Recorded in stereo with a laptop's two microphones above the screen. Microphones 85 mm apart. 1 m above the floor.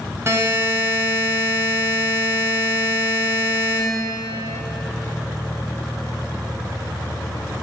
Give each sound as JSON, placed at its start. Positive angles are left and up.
{"t": 0.3, "sound": "a buzzer", "side_deg": -35, "distance_m": 2.0}